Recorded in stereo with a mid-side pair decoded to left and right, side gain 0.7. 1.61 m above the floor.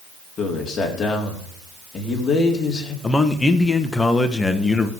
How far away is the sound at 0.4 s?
About 4 m.